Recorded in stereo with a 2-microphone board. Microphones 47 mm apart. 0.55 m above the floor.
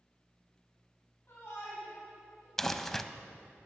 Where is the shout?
50° left (ahead or behind), 3.5 m; by 2.5 s 60° left (ahead or behind), 3 m.